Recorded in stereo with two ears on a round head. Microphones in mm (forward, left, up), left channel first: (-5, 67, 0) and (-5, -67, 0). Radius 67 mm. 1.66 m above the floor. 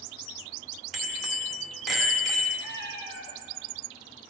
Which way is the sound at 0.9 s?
Centre (ahead or behind).